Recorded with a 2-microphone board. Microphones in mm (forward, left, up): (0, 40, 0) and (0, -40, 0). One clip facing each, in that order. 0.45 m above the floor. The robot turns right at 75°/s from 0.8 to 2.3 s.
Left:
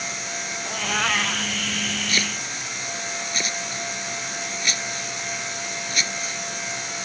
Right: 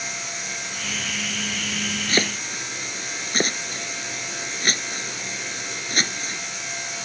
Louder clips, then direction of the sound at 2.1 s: Right 3 dB; 35° right (ahead or behind).